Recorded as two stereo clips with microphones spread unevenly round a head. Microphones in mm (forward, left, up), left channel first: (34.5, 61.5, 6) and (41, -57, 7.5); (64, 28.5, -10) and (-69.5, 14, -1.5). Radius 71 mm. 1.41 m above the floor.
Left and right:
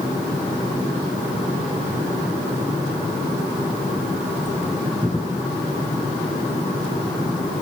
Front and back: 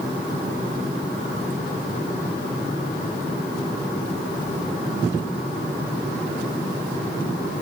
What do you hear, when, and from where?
Only background noise.